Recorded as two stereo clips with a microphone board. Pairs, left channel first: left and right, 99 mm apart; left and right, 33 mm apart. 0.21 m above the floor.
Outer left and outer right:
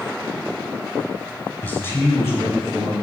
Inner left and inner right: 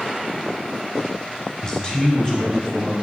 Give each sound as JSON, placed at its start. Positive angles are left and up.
{"t": 1.6, "sound": "a man speaking", "side_deg": 20, "distance_m": 1.0}